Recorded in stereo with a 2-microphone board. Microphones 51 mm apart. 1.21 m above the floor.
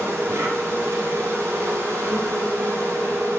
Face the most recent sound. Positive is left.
turn(degrees=-80)